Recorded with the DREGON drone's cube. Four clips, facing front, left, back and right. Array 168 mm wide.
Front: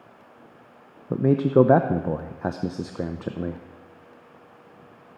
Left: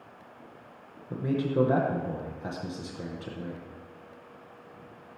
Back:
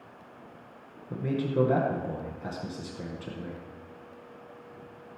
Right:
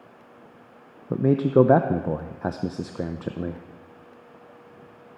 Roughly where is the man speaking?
Ahead right.